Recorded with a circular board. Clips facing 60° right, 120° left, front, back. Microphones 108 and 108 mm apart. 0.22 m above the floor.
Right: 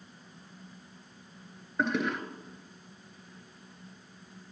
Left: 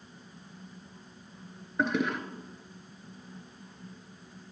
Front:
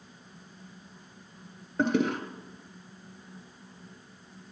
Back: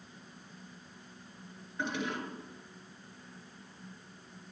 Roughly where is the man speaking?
I don't hear a man speaking.